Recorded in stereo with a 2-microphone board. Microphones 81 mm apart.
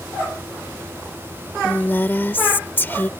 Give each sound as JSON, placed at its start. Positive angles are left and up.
{"t": 1.6, "sound": "a woman speaking", "side_deg": 25}